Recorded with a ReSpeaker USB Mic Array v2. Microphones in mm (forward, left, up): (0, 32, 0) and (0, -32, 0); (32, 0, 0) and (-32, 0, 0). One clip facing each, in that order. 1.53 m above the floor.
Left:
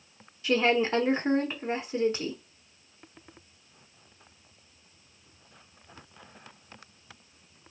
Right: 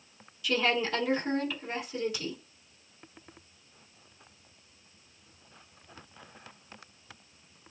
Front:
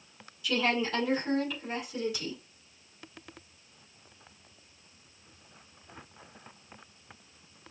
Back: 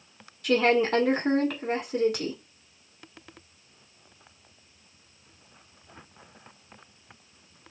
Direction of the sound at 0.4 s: 145° left.